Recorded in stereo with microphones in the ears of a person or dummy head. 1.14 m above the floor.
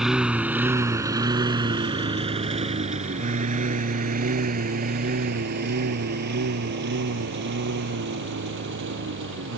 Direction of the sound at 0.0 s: Centre (ahead or behind).